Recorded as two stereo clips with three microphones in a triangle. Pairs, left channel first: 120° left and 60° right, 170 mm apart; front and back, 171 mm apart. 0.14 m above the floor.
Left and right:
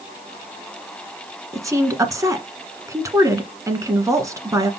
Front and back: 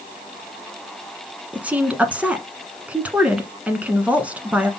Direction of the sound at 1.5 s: 105° right.